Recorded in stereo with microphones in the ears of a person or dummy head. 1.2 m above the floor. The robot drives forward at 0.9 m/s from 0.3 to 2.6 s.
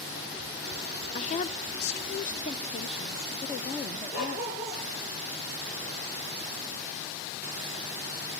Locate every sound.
1.1 s a woman speaking: 30° left (ahead or behind), 0.8 m; by 4.8 s 25° left (ahead or behind), 0.9 m
4.1 s a dog barking: 80° left, 9.5 m